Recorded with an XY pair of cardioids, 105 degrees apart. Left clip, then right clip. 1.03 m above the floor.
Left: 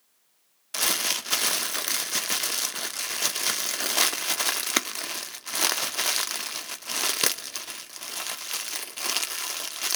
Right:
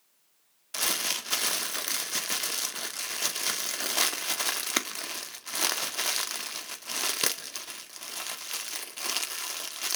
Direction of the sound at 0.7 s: 20° left.